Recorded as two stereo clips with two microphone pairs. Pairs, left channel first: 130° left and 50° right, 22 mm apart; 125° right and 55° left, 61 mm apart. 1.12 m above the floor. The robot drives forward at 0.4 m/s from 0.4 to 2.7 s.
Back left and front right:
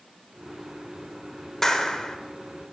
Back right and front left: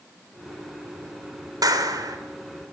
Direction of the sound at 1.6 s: 60° left.